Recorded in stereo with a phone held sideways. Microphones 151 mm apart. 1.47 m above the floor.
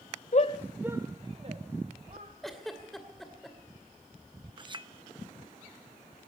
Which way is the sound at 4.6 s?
30° right (ahead or behind).